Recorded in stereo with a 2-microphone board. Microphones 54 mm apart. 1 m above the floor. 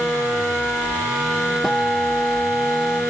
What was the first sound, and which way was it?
A guitar, 5° left (ahead or behind).